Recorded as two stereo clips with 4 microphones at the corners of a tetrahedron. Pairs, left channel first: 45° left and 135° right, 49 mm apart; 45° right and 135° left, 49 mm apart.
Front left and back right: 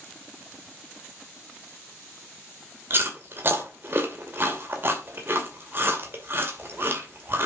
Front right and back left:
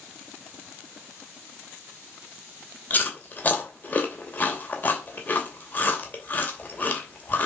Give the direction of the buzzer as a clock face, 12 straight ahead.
No buzzer in this recording.